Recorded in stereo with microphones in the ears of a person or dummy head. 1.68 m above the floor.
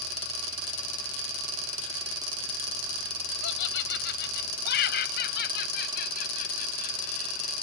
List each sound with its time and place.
3.4 s laughter: 70° left (ahead or behind); by 7.5 s 50° left (ahead or behind)